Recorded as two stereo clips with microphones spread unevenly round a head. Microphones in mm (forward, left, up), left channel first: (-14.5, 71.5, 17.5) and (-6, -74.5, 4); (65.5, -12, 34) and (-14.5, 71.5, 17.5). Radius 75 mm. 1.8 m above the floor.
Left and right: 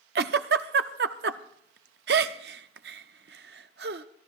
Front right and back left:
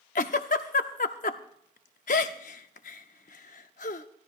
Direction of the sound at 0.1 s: 65° right.